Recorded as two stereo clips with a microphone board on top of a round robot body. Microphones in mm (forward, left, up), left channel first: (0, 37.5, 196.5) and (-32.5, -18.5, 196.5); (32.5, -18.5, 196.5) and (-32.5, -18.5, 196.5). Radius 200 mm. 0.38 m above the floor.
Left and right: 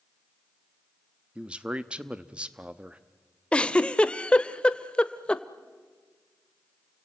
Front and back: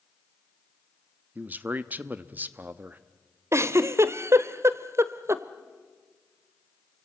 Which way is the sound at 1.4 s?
175° right.